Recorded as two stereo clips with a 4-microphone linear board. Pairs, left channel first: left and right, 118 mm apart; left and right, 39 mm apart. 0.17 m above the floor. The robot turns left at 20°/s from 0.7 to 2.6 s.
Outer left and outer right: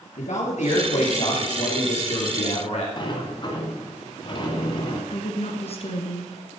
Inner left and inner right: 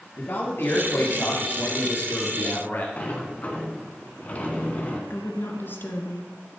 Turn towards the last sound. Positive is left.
turn(degrees=55)  # may be behind; listen again after turning